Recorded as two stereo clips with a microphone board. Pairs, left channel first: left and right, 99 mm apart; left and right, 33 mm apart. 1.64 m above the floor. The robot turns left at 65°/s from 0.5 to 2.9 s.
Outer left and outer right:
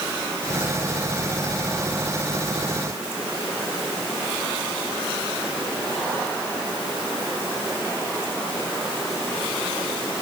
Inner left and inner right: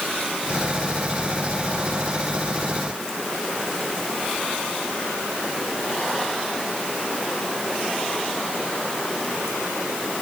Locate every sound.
Only background noise.